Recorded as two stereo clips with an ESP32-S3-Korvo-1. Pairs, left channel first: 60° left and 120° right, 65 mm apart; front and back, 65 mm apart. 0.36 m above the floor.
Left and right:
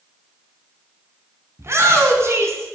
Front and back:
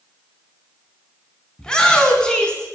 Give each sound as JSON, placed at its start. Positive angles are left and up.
{"t": 1.6, "sound": "a shout", "azimuth_deg": -80, "distance_m": 4.0}